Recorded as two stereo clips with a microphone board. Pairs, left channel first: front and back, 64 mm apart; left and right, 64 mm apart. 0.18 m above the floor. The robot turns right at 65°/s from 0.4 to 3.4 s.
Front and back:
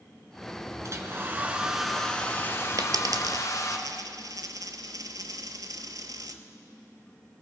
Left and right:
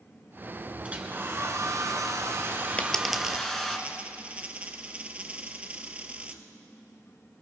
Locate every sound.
0.8 s a hair dryer: 155° right, 1.1 m; by 3.8 s 10° left, 1.1 m
2.8 s a dropped coin: 160° left, 0.7 m; by 6.4 s 160° right, 0.7 m